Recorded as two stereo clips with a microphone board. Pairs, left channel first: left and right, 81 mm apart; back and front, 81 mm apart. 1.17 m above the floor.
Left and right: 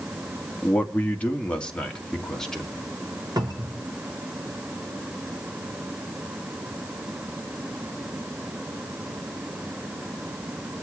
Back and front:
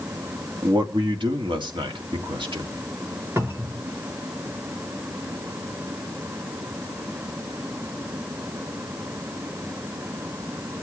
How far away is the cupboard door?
About 1.7 m.